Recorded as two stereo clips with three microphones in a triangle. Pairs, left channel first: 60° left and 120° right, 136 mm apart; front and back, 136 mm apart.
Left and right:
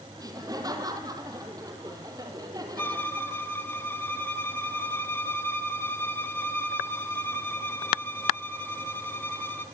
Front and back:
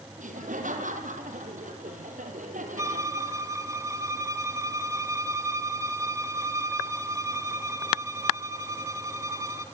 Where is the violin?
125° left, 2 m.